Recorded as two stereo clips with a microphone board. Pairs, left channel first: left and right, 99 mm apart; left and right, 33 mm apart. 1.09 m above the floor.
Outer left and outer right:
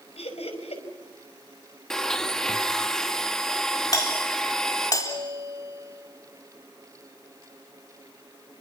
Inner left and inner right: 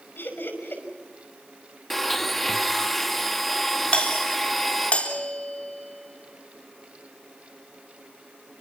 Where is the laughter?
90° left, 5.5 m.